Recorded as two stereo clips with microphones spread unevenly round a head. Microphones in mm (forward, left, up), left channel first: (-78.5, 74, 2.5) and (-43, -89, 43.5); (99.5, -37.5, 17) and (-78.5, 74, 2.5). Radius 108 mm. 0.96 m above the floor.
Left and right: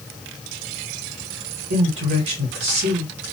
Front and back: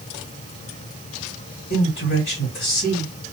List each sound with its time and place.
1.7 s a man speaking: 80° right, 1.7 m